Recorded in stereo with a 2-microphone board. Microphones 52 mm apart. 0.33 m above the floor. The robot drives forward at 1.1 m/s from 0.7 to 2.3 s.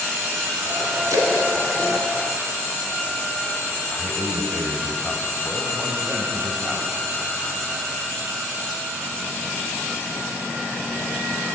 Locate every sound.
1.1 s a splash: 85° right, 1.9 m; by 3.1 s 55° right (ahead or behind), 2.5 m
3.9 s a man speaking: 10° left (ahead or behind), 1.4 m